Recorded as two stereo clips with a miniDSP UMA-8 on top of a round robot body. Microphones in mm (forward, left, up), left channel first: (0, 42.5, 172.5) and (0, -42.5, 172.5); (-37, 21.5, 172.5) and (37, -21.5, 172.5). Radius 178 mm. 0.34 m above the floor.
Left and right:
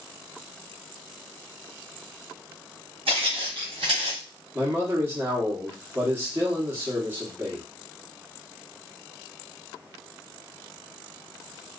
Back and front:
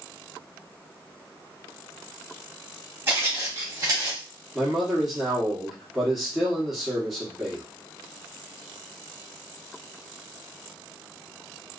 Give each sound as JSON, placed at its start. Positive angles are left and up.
{"t": 3.1, "sound": "footsteps", "azimuth_deg": -95, "distance_m": 1.3}
{"t": 4.5, "sound": "a man speaking", "azimuth_deg": -115, "distance_m": 1.2}